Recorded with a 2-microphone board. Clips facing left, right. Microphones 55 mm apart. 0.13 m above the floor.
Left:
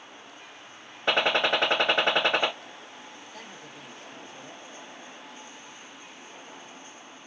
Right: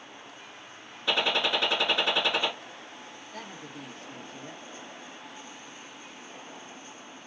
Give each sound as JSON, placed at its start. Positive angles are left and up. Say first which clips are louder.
{"t": 1.1, "sound": "a gunshot", "louder": "left 3 dB", "side_deg": 45, "distance_m": 1.2}
{"t": 3.3, "sound": "a woman speaking", "louder": "right 6 dB", "side_deg": -45, "distance_m": 2.5}